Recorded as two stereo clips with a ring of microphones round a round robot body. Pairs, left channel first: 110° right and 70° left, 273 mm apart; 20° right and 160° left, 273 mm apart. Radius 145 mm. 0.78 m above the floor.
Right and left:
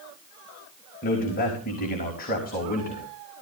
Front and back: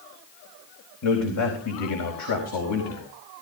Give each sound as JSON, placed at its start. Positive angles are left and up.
{"t": 1.0, "sound": "a man speaking", "azimuth_deg": -50, "distance_m": 4.0}